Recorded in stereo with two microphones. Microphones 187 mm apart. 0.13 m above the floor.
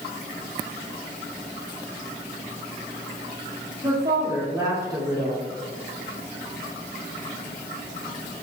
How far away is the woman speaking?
About 2.0 m.